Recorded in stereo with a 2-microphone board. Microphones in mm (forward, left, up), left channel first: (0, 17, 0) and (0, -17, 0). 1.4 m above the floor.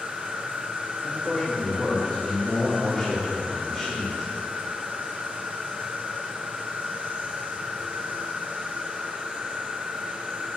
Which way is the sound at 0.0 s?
55° right (ahead or behind).